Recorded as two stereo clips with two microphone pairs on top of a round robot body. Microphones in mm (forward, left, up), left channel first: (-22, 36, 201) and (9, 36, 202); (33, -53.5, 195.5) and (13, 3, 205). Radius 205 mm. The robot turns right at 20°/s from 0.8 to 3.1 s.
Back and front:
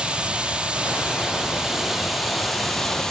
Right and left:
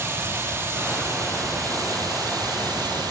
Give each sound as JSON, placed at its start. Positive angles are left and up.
{"t": 0.0, "sound": "running water", "azimuth_deg": 55, "distance_m": 5.0}